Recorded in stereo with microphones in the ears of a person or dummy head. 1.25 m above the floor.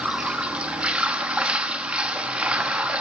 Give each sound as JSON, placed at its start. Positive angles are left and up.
{"t": 0.0, "sound": "running water", "side_deg": -5, "distance_m": 1.3}